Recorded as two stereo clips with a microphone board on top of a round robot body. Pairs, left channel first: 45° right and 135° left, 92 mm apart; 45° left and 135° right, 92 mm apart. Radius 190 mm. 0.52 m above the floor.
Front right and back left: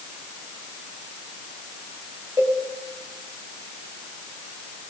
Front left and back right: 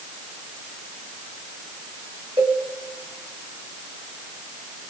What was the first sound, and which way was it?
A cowbell, 170° right.